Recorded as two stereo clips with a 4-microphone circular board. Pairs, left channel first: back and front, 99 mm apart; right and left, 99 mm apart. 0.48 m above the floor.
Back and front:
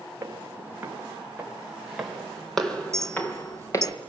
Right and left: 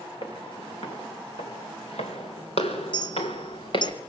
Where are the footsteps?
65° right, 6 m; by 3.9 s 125° right, 3.5 m.